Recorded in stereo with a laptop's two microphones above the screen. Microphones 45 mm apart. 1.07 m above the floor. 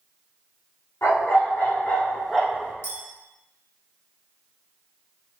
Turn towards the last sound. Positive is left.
turn(degrees=60)  # may be behind; listen again after turning